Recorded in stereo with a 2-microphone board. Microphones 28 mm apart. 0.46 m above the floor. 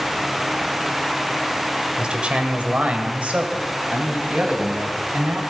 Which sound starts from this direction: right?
A man speaking, at 2.0 s.